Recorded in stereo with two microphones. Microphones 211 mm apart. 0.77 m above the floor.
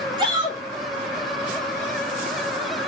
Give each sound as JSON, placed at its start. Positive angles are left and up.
{"t": 0.2, "sound": "a shout", "side_deg": -20, "distance_m": 3.0}